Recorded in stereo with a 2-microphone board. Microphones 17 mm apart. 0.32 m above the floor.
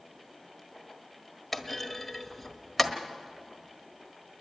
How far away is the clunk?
About 1.4 m.